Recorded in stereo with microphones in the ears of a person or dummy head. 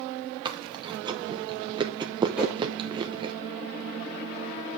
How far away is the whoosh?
About 4 m.